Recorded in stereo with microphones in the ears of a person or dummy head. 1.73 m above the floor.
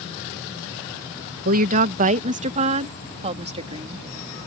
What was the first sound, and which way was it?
A woman speaking, 45° right (ahead or behind).